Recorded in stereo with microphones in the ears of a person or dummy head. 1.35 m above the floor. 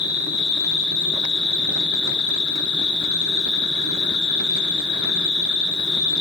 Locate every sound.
0.0 s an insect: 30° left (ahead or behind), 1.0 m